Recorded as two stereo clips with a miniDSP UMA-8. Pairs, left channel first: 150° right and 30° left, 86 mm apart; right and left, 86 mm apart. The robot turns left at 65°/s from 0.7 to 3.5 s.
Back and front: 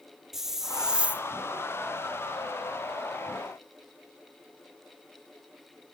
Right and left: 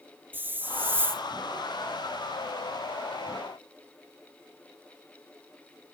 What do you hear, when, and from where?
0.3 s a hiss: 110° left, 0.9 m; by 1.2 s 75° left, 0.9 m